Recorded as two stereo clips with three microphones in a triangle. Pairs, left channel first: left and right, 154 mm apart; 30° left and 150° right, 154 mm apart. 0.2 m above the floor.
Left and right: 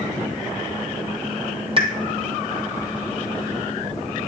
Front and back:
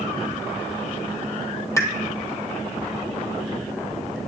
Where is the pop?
40° right, 1.0 m.